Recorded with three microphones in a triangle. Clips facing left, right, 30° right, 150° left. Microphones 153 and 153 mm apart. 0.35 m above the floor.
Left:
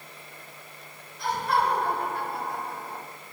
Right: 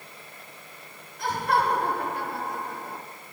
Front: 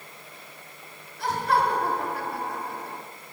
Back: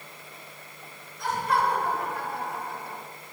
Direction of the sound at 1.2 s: 50° right.